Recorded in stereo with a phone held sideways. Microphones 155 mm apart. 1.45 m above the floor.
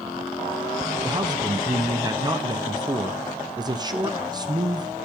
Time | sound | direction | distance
1.0 | a man speaking | 25° right (ahead or behind) | 0.9 m